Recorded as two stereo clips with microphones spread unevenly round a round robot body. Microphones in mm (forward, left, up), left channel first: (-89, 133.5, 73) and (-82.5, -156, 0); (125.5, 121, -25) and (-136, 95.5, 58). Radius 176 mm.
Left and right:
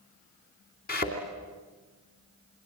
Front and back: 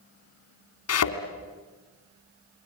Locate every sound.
0.9 s a thud: 30° left, 2.5 m